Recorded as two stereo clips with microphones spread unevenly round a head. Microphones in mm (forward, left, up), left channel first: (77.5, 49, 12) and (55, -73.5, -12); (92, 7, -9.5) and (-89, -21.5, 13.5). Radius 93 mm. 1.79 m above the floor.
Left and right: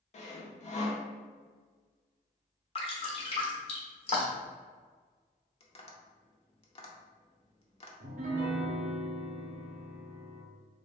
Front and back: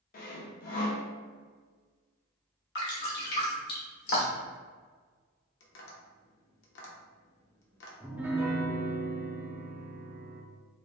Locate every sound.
0.1 s sawing: 55° left, 0.8 m
2.8 s dripping: 50° left, 1.3 m
5.6 s tapping: 40° left, 0.8 m
8.0 s a piano: 100° right, 0.7 m